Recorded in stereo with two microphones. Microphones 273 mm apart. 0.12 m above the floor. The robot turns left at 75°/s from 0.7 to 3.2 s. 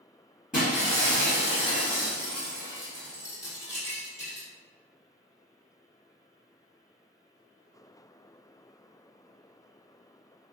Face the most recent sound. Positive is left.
turn(degrees=170)